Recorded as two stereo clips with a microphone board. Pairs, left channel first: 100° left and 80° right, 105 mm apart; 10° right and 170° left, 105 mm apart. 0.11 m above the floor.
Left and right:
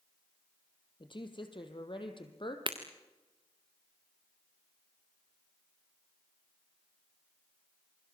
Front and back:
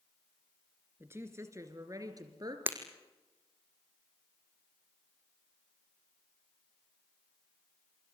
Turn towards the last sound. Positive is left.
turn(degrees=-120)